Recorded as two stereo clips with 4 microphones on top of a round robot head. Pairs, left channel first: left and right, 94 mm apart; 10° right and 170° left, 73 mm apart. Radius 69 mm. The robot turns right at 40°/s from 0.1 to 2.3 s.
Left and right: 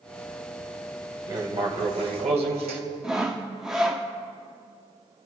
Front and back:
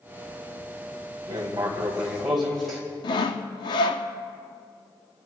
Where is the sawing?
5° right, 0.6 m.